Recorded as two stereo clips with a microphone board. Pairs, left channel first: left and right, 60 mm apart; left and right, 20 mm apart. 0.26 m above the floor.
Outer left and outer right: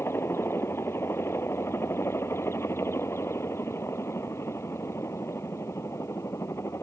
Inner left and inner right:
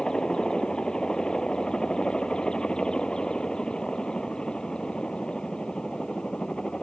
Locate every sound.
0.0 s a helicopter: 45° left (ahead or behind); by 6.8 s 50° left (ahead or behind)